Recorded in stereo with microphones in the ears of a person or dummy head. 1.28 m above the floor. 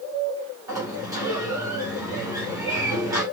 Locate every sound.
0.7 s a sliding door: 15° right (ahead or behind), 2.5 m